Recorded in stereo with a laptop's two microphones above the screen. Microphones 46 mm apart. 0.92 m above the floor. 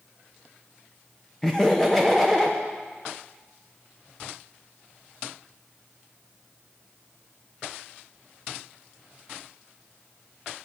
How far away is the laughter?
About 0.7 m.